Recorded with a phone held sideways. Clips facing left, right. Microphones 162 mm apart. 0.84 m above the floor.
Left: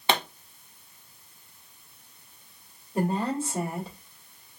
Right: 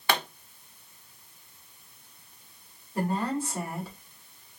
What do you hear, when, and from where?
0.1 s a pop: 25° left (ahead or behind), 0.7 m
3.0 s a woman speaking: 25° left (ahead or behind), 1.8 m